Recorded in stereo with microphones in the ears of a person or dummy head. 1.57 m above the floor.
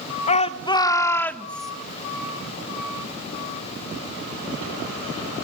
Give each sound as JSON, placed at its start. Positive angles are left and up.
{"t": 0.3, "sound": "a shout", "side_deg": 30, "distance_m": 1.1}